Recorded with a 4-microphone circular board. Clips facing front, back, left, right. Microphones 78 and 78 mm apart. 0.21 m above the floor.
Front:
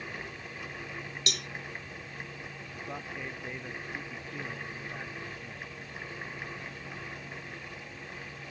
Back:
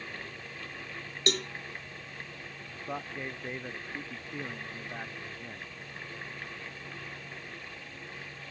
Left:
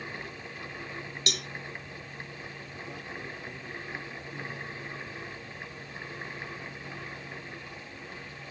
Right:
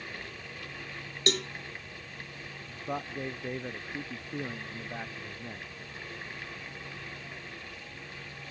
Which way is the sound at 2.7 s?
110° right.